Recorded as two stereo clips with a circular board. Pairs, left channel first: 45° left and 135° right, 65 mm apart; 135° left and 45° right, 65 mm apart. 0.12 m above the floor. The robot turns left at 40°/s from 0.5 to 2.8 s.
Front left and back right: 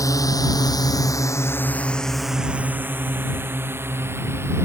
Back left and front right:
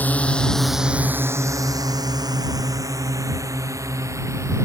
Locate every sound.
0.0 s a drone: 75° left; by 4.7 s 85° right